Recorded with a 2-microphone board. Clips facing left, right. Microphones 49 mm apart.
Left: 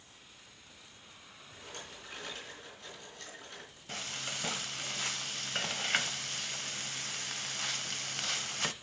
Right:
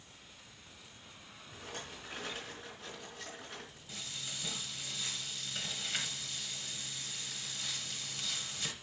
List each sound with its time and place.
1.5 s a rattle: 10° right (ahead or behind), 4 m
3.9 s frying: 55° left (ahead or behind), 0.7 m